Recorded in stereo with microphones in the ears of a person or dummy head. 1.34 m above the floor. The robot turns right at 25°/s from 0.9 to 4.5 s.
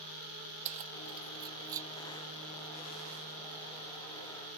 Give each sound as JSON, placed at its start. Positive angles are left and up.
{"t": 0.7, "sound": "keys jangling", "side_deg": -40}